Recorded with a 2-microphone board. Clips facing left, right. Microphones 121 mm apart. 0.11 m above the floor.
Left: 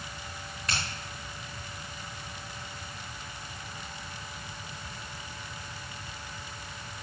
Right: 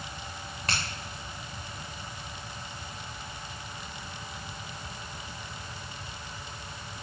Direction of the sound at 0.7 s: 60° right (ahead or behind).